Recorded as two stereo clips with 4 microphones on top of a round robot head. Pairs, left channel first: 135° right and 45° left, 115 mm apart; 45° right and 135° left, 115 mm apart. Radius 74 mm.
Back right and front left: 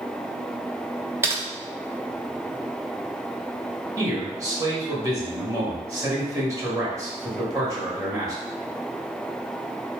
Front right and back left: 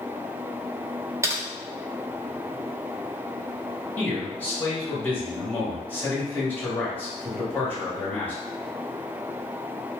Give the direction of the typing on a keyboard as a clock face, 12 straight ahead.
9 o'clock.